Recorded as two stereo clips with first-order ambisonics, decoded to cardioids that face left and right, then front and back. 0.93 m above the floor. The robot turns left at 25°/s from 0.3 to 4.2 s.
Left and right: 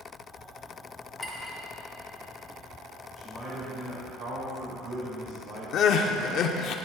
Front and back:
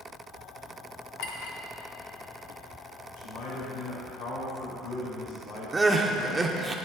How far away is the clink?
About 1.2 m.